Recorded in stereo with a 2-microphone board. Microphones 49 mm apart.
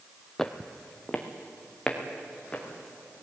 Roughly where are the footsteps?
Centre.